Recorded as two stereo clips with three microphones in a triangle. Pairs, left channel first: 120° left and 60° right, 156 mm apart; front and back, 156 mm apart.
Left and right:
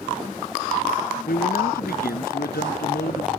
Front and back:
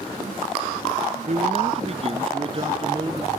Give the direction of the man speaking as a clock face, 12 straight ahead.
7 o'clock.